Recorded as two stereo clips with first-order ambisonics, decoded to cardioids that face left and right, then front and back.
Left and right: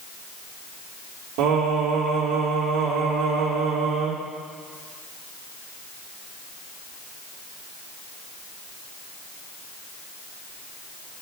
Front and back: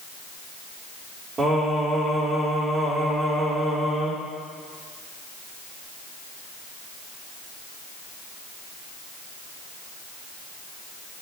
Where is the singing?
105° right, 4.5 m.